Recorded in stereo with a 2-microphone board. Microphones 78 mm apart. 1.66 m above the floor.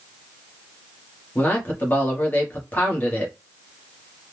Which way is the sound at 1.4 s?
20° left (ahead or behind).